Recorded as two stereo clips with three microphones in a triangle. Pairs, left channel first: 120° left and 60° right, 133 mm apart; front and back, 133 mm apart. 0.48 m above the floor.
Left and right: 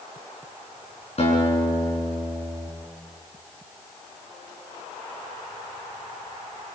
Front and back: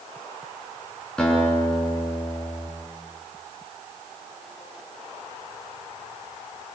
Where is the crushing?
I don't hear crushing.